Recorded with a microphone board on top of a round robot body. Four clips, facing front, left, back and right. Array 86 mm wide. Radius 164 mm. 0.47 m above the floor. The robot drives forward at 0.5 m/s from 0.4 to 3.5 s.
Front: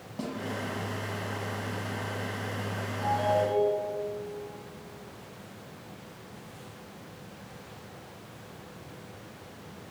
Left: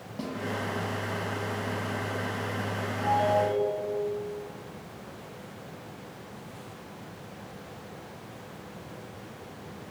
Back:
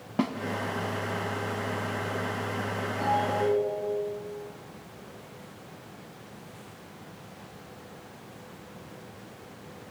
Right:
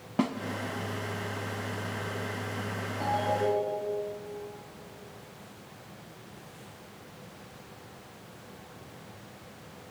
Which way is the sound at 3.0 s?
145° right.